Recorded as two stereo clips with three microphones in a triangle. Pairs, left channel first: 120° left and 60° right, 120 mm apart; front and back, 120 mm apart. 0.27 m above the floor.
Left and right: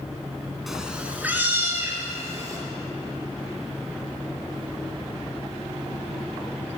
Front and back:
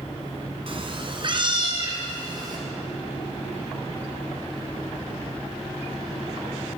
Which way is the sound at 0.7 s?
145° right.